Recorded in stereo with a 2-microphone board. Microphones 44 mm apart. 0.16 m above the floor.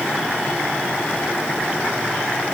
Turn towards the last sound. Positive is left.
No sound to turn to.